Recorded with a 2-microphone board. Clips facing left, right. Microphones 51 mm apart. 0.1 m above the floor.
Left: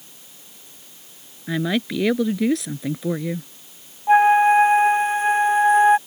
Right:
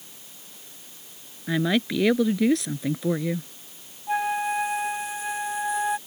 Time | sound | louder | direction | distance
1.5 | a woman speaking | left 1 dB | centre (ahead or behind) | ?
4.1 | a flute | left 12 dB | 40° left (ahead or behind) | ?